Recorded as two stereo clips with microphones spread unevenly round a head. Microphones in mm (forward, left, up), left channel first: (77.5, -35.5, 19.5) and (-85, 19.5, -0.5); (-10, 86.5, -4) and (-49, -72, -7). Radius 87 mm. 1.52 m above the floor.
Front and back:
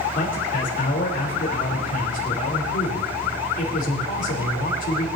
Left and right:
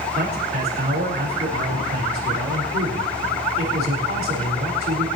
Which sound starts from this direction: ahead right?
A man speaking, at 0.1 s.